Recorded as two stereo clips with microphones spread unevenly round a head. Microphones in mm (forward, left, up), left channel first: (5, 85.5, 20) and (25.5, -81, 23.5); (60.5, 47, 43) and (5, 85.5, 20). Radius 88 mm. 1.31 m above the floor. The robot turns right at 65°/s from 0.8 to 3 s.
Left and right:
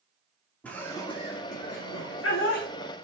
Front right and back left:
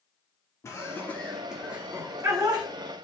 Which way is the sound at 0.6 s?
15° left.